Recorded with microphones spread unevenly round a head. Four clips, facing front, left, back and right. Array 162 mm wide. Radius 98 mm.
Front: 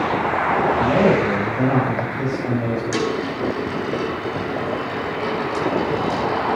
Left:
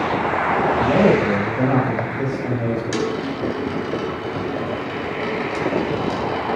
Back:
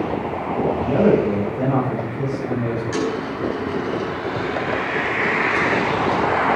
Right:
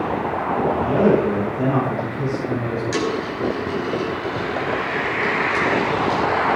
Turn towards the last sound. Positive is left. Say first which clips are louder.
# even, front 1 dB
turn(degrees=60)